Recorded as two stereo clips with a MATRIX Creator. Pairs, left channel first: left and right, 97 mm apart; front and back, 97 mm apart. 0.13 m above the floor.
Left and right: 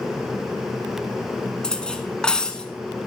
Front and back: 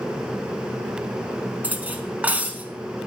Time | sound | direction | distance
1.6 | cutlery clinking | 150° left | 0.6 m